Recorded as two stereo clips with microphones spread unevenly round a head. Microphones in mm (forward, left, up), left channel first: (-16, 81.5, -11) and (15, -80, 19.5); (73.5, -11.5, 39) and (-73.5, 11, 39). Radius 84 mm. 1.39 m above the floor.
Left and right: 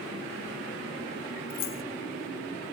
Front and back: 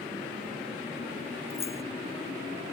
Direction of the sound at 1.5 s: 60° left.